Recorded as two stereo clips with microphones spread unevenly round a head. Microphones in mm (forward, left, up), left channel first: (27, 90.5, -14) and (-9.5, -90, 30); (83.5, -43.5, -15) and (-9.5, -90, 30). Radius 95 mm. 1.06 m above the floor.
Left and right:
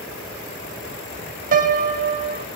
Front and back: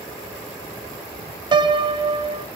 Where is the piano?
105° right, 0.7 m.